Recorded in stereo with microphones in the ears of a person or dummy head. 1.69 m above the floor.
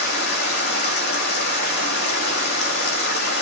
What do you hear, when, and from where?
0.0 s running water: 55° left (ahead or behind), 2.5 m